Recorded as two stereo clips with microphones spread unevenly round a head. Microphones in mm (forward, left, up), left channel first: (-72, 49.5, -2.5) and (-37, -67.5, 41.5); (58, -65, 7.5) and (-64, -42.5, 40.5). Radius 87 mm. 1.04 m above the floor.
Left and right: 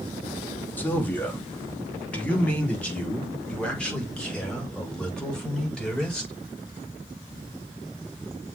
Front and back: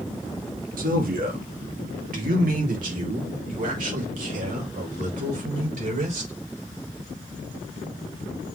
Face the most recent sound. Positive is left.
turn(degrees=-170)